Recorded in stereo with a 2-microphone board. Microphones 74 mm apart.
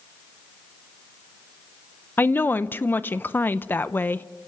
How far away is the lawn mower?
I don't hear a lawn mower.